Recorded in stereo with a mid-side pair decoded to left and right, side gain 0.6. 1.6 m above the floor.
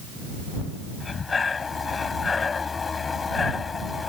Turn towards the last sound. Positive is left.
turn(degrees=25)